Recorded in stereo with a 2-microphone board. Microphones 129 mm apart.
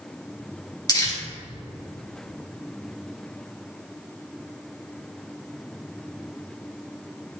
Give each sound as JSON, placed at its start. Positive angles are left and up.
{"t": 0.9, "sound": "crumpling", "side_deg": 30, "distance_m": 2.5}